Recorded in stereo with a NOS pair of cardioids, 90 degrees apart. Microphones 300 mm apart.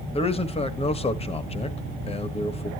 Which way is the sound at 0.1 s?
20° left.